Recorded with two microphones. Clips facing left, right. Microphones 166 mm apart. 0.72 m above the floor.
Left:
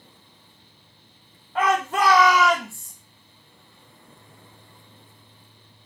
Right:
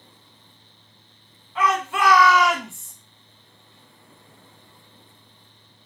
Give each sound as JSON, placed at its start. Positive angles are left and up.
{"t": 1.6, "sound": "a shout", "side_deg": 55, "distance_m": 1.1}